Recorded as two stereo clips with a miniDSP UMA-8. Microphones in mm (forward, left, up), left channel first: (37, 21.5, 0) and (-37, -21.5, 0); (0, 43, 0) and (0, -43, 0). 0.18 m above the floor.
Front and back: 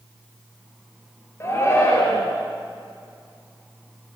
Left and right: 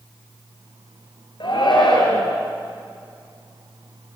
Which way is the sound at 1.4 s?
85° left.